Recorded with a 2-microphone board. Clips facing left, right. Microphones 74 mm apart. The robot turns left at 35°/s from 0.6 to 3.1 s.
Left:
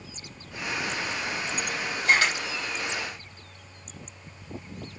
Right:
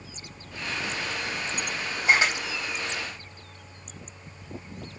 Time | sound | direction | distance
2.0 | a camera shutter | 10° right (ahead or behind) | 4 m